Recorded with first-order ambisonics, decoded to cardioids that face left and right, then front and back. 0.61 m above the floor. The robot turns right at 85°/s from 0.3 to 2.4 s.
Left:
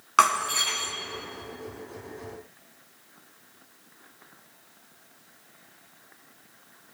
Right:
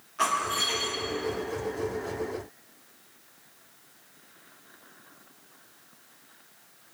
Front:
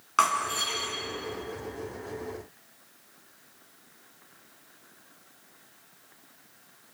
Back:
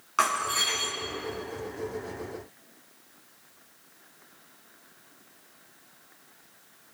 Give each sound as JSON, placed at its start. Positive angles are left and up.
{"t": 0.2, "sound": "breaking glass", "azimuth_deg": 80, "distance_m": 3.5}